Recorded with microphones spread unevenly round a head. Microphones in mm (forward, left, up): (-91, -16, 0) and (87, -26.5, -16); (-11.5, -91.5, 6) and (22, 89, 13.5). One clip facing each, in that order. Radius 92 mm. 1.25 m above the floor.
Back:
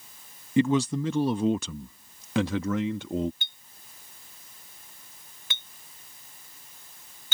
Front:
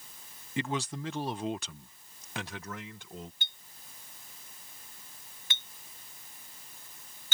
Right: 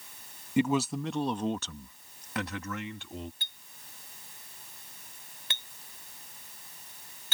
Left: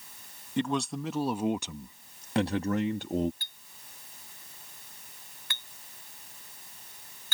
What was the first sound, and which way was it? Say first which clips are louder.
A man speaking: back 11 dB, right 3 dB; straight behind.